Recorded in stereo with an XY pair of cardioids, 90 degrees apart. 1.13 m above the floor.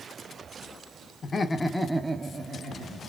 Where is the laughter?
45° left, 1.0 m; by 3.1 s 70° right, 1.5 m.